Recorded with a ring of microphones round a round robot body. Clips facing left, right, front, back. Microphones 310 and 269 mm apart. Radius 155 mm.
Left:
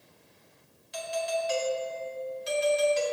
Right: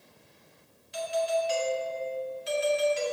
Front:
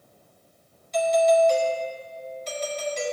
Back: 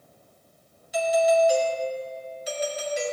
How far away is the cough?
No cough in this recording.